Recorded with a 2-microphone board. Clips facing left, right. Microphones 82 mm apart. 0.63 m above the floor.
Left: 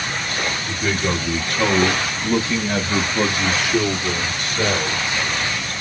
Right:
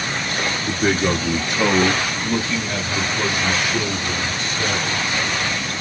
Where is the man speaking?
45° right (ahead or behind), 1.0 m; by 5.0 s 60° left (ahead or behind), 2.0 m.